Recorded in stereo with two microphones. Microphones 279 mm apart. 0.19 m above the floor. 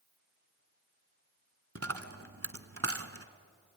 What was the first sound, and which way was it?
A dropped coin, 55° right (ahead or behind).